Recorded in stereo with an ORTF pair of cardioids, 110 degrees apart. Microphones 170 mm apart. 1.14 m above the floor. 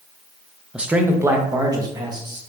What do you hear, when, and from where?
0.7 s a man speaking: 5° right, 0.5 m; by 2.4 s 25° right, 1.5 m